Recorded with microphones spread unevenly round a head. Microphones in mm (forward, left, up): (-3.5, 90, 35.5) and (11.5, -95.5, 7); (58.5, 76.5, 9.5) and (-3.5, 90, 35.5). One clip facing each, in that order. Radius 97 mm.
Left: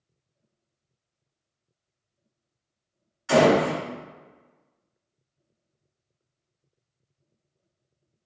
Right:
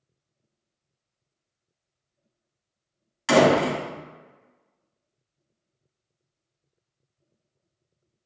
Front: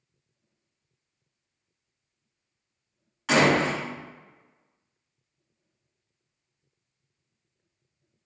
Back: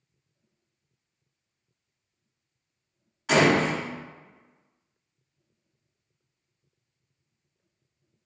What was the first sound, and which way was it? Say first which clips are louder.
A door slam: even, even; 80° right.